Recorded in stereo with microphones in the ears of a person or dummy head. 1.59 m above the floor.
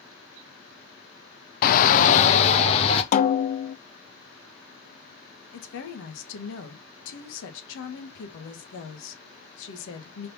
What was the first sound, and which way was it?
A shout, 50° left (ahead or behind).